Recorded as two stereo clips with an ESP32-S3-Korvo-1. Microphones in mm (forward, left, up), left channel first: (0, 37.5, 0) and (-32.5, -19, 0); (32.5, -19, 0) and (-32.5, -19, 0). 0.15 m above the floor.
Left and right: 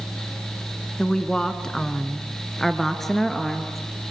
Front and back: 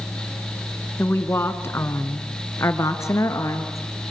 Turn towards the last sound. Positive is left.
turn(degrees=-30)